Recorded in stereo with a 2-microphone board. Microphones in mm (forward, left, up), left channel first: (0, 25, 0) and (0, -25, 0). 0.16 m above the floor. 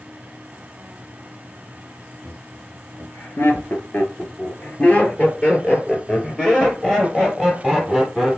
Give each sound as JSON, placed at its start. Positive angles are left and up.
{"t": 2.2, "sound": "laughter", "side_deg": 55, "distance_m": 2.5}